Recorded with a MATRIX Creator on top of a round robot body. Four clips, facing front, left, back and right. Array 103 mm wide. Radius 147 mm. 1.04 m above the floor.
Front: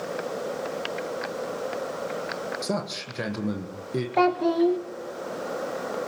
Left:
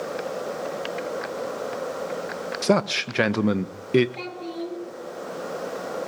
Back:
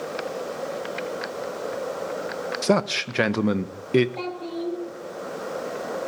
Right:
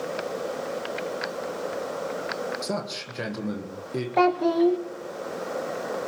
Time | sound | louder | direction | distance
2.6 | a man speaking | left 9 dB, back 8 dB | 135° left | 1.5 m
4.2 | a child speaking | right 12 dB, front 10 dB | 50° right | 1.4 m